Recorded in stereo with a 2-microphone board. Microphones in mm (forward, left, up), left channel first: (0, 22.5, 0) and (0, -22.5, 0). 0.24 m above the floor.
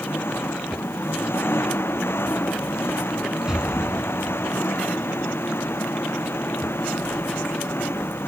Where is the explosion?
15° right (ahead or behind).